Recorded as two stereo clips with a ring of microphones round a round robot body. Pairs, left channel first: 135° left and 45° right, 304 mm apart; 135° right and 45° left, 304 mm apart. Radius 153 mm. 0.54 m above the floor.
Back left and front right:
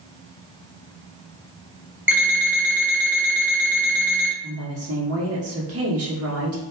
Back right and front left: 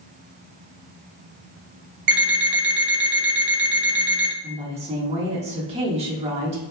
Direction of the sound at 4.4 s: 20° right.